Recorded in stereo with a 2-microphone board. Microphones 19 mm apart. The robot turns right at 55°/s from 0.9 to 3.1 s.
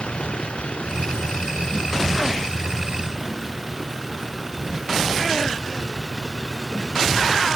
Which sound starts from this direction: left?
A vehicle, at 0.0 s.